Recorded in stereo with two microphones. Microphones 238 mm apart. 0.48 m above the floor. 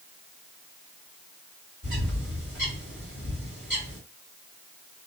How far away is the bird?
About 1.8 m.